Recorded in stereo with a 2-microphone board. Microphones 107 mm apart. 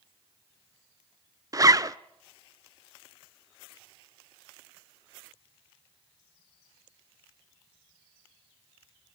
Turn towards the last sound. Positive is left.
turn(degrees=-35)  # may be behind; listen again after turning